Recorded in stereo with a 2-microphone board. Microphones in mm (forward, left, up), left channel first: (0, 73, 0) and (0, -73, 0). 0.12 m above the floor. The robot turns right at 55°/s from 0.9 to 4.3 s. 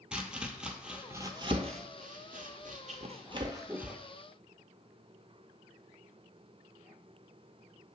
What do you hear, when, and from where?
0.1 s chopping: 5° right (ahead or behind), 0.6 m